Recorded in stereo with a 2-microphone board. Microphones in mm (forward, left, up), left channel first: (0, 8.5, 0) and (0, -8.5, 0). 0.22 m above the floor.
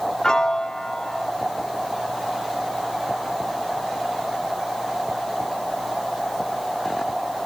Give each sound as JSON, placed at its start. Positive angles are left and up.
{"t": 0.2, "sound": "a piano", "side_deg": 40}